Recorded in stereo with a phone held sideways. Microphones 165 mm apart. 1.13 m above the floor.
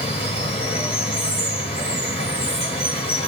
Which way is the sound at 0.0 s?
40° left (ahead or behind).